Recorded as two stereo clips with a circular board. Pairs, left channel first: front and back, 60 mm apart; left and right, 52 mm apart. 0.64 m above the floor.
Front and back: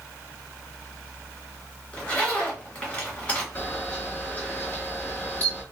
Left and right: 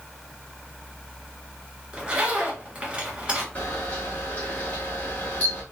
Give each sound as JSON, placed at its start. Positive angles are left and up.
{"t": 1.9, "sound": "a zipper", "azimuth_deg": -45, "distance_m": 1.3}
{"t": 3.5, "sound": "a camera shutter", "azimuth_deg": 50, "distance_m": 1.3}